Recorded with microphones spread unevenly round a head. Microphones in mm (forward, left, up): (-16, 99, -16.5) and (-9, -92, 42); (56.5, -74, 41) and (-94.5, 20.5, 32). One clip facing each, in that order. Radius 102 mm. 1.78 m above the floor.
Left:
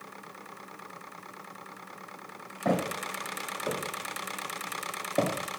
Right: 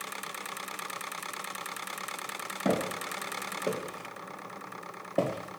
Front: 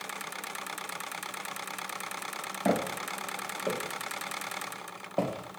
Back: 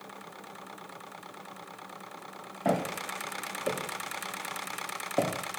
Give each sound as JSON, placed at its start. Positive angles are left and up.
{"t": 2.6, "sound": "footsteps", "azimuth_deg": -95, "distance_m": 2.5}